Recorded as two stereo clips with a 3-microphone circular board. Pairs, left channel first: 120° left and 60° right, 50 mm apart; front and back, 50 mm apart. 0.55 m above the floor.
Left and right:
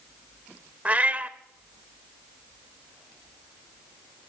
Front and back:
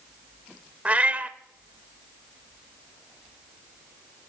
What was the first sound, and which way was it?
A cat meowing, 120° right.